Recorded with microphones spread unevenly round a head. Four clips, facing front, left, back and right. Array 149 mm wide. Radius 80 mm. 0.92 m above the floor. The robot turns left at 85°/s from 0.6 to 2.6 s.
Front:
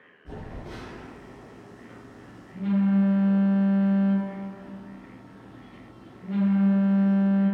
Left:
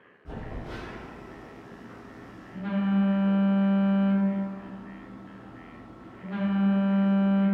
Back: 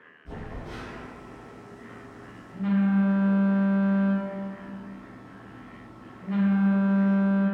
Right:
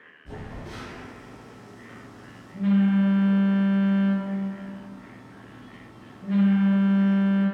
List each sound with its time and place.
0.2 s a phone buzzing: 35° left, 0.9 m; by 7.5 s 135° right, 0.9 m